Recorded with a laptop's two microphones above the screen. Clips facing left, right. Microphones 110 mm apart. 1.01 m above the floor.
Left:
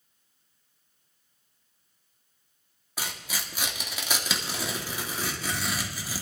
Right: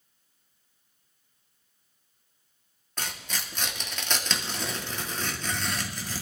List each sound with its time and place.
3.0 s tearing paper: 10° left (ahead or behind), 1.4 m